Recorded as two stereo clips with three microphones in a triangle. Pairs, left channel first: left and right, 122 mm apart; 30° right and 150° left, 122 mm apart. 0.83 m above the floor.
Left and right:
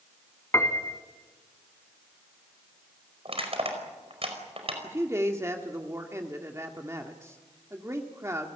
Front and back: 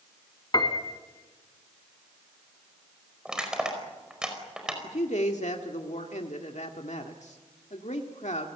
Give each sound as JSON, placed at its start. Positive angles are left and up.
{"t": 0.5, "sound": "a piano", "azimuth_deg": 20, "distance_m": 2.0}
{"t": 3.2, "sound": "crushing", "azimuth_deg": -125, "distance_m": 5.0}
{"t": 4.8, "sound": "a man speaking", "azimuth_deg": -25, "distance_m": 1.8}